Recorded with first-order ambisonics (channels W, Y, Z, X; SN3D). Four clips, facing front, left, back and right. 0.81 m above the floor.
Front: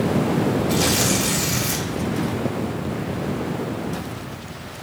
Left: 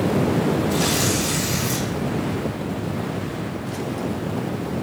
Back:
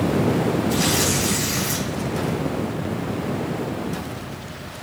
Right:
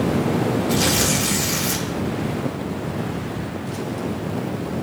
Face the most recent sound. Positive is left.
turn(degrees=-50)